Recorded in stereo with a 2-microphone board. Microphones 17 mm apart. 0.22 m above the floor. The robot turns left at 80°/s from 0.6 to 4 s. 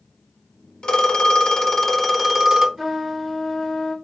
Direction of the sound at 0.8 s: 105° left.